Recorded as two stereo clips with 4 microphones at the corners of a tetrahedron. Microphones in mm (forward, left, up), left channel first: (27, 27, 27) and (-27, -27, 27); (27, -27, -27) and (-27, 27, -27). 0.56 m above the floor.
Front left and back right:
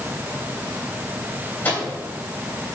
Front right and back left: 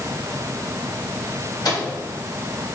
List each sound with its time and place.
1.6 s a microwave: 20° right, 3 m